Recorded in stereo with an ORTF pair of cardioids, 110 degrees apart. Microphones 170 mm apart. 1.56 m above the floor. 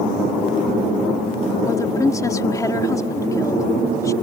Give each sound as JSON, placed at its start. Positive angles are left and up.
{"t": 1.6, "sound": "a woman speaking", "azimuth_deg": 20}